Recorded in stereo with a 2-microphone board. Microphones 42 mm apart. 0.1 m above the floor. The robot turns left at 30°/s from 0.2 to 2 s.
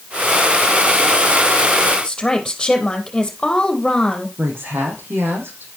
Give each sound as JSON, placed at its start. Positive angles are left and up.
{"t": 2.0, "sound": "a woman speaking", "side_deg": 15, "distance_m": 3.5}
{"t": 4.4, "sound": "a woman speaking", "side_deg": -70, "distance_m": 5.0}